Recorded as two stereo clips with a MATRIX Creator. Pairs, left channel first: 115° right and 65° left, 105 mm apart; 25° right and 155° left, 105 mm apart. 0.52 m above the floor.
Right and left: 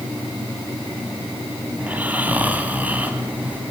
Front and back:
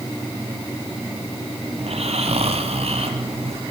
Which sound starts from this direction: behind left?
Snoring, at 1.8 s.